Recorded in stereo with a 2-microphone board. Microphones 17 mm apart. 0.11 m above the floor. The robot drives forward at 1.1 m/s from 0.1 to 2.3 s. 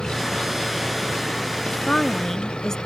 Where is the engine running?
65° left (ahead or behind).